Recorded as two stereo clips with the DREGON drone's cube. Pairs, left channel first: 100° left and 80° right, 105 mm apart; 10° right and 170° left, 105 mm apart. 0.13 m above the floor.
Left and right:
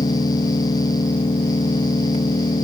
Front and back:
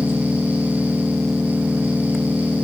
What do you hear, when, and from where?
0.0 s an engine running: 85° left